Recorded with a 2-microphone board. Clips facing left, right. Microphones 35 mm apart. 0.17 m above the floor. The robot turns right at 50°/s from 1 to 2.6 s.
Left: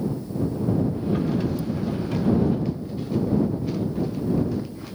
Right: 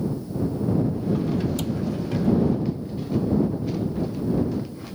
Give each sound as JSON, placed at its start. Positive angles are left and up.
{"t": 1.6, "sound": "a cupboard door", "side_deg": -70}